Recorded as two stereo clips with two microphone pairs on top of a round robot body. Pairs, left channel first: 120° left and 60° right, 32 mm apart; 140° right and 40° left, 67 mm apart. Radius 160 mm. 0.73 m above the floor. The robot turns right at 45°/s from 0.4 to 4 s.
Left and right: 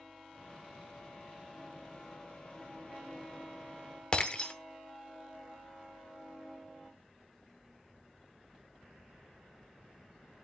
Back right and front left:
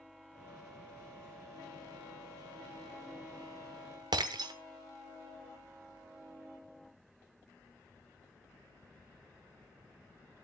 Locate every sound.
4.1 s breaking glass: 55° left, 0.9 m